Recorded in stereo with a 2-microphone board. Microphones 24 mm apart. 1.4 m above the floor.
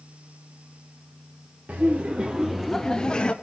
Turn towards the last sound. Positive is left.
turn(degrees=40)  # may be behind; listen again after turning